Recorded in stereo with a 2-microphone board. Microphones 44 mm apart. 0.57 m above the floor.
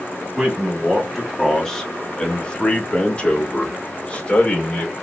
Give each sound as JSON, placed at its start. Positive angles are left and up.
{"t": 0.4, "sound": "a man speaking", "side_deg": -5, "distance_m": 1.3}